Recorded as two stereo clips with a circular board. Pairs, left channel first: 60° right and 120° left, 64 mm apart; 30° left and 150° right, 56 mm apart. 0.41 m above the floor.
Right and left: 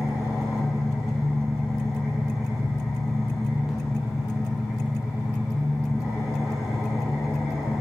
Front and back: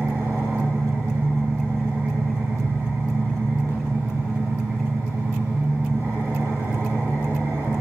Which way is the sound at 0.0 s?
155° right.